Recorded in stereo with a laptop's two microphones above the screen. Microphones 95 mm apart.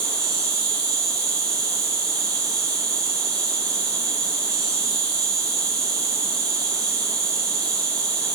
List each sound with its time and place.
0.0 s an insect: 40° right (ahead or behind), 1.4 m